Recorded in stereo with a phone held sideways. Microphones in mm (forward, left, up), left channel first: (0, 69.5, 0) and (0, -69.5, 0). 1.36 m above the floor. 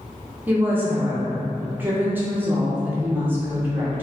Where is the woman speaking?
15° right (ahead or behind), 0.8 m.